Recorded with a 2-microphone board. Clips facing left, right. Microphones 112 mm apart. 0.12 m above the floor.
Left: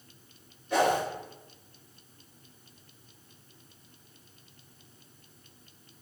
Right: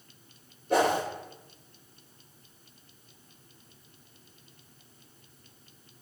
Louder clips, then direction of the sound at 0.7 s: Right 1 dB; 50° right (ahead or behind).